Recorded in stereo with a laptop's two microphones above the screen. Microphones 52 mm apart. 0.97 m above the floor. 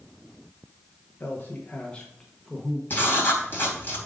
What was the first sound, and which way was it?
A man speaking, 40° left (ahead or behind).